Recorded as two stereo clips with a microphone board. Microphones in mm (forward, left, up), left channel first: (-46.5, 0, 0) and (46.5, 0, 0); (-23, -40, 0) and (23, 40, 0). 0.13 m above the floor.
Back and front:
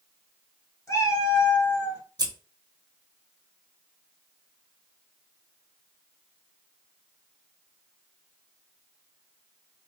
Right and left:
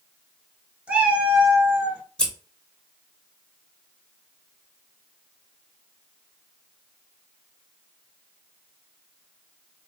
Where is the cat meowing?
130° left, 0.8 m.